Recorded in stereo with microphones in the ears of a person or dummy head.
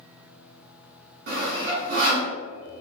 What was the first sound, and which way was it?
Sawing, 45° right (ahead or behind).